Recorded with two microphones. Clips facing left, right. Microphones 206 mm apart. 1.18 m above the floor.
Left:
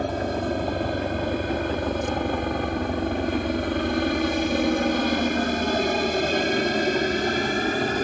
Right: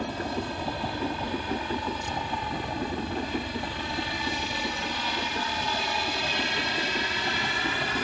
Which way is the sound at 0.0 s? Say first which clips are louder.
Left 6 dB; 55° left (ahead or behind).